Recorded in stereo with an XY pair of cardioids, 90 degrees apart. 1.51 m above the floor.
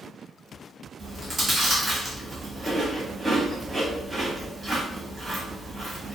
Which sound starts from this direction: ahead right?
Chewing, at 1.0 s.